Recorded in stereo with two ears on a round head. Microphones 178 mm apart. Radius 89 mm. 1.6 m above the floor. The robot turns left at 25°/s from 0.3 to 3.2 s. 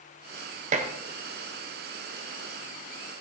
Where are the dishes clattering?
40° right (ahead or behind), 1.1 m; by 0.9 s 35° right (ahead or behind), 1.1 m.